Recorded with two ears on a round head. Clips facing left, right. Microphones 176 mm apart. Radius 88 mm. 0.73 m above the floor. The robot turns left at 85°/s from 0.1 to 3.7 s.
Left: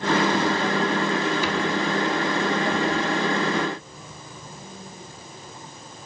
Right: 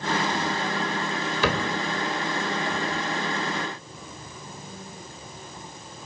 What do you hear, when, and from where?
1.4 s a cupboard door: 50° right (ahead or behind), 3 m; by 1.7 s 70° right (ahead or behind), 3 m